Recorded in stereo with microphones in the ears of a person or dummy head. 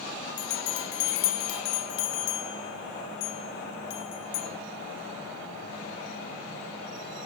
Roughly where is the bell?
Left.